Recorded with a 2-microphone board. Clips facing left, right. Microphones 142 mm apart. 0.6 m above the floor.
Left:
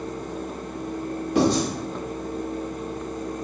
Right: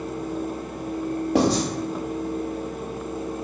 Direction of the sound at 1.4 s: 75° right (ahead or behind).